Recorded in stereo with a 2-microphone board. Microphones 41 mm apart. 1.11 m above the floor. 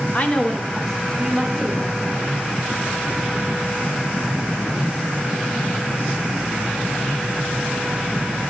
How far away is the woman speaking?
About 0.8 m.